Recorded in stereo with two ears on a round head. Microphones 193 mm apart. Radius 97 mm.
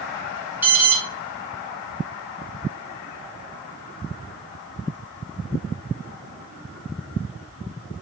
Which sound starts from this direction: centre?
An alarm, at 0.6 s.